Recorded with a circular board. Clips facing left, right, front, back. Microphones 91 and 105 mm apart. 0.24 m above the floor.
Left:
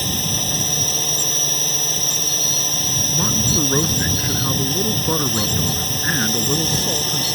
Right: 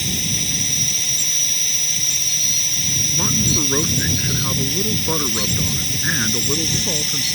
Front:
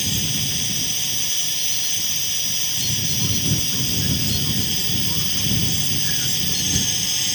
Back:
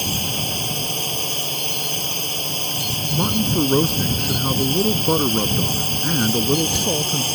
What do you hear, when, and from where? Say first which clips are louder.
0.0 s a drone: left 2 dB, back 3 dB; 135° left
3.1 s a man speaking: even, back 8 dB; 175° left